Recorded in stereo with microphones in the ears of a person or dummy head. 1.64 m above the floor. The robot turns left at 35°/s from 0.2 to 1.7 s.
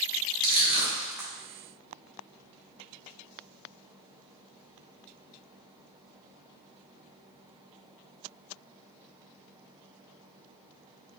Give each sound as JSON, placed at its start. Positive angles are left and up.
{"t": 0.4, "sound": "crushing", "side_deg": -50, "distance_m": 1.2}